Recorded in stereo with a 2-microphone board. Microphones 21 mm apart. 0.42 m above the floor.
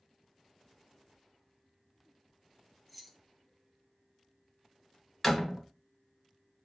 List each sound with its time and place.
2.9 s keys jangling: centre (ahead or behind), 0.8 m
5.2 s a door slam: 5° left (ahead or behind), 2.0 m